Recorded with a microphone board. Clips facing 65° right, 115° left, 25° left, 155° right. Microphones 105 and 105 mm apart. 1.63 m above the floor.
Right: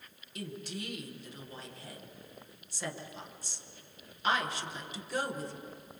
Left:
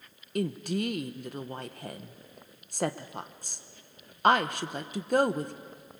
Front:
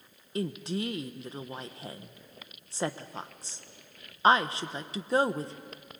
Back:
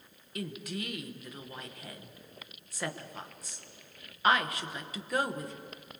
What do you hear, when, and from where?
0.3 s a woman speaking: 85° left, 1.2 m